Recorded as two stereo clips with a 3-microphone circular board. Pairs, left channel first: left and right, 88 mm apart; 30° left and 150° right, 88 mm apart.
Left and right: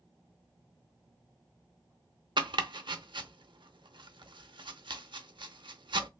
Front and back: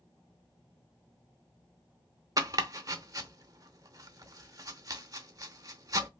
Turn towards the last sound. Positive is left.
turn(degrees=-105)